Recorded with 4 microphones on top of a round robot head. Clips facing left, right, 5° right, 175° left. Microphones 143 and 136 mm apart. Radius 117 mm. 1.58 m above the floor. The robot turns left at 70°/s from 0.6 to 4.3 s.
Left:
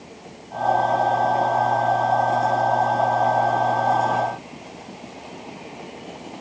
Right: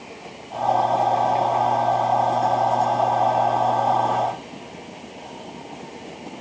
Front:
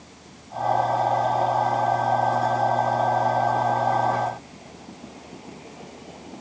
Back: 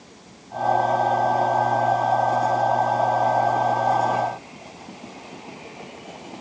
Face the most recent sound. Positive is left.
No sound to turn to.